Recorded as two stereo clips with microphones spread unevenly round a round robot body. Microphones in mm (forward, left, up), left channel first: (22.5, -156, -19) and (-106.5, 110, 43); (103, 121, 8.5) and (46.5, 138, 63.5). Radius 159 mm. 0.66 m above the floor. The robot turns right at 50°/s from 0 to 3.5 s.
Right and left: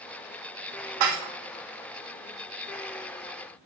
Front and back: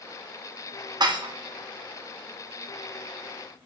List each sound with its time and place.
1.0 s dishes clattering: 110° left, 0.6 m; by 1.3 s 130° left, 0.6 m